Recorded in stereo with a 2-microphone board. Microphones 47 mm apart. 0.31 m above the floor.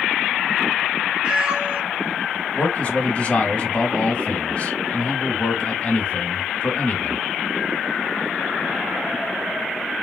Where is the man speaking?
30° left (ahead or behind), 1.1 m.